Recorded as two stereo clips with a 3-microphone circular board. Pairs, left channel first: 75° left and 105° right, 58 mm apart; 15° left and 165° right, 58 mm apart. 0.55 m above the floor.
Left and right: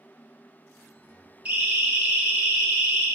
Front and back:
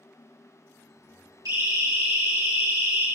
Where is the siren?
175° right, 7.5 m; by 3.1 s straight behind, 7.5 m.